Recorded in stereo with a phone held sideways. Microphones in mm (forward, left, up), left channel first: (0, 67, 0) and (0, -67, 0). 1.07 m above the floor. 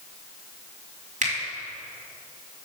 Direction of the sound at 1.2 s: 70° right (ahead or behind).